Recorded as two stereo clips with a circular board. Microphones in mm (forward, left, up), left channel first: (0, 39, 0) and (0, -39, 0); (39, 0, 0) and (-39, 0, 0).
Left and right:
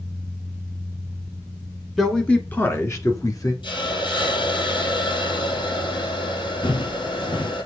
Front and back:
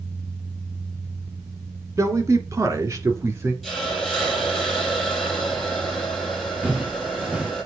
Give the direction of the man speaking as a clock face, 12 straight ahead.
6 o'clock.